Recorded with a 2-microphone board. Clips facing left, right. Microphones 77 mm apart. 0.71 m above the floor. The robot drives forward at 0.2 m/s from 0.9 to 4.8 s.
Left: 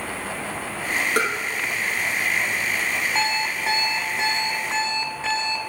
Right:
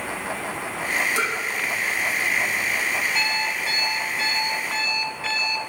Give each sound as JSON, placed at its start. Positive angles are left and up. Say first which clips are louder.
{"t": 1.2, "sound": "tapping", "louder": "left 3 dB", "side_deg": 50, "distance_m": 4.5}
{"t": 3.1, "sound": "an alarm clock", "louder": "left 1 dB", "side_deg": 25, "distance_m": 2.0}